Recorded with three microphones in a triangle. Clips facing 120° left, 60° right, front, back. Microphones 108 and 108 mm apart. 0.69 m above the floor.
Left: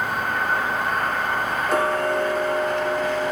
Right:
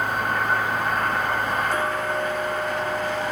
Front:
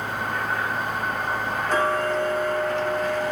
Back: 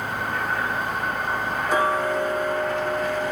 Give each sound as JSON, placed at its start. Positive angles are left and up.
{"t": 1.7, "sound": "ticking", "azimuth_deg": 100, "distance_m": 0.8}